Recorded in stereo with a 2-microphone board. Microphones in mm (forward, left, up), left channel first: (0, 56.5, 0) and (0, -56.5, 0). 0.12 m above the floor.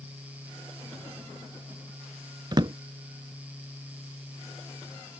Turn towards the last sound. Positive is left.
turn(degrees=-40)  # may be behind; listen again after turning